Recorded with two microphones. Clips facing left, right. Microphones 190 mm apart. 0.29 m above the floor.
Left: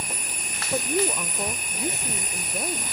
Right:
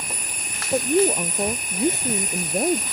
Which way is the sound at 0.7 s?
20° right (ahead or behind).